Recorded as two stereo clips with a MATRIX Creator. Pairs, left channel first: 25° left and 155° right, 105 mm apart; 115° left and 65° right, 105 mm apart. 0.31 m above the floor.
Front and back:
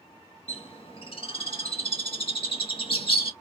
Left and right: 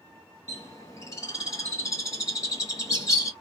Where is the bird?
55° left, 1.0 m.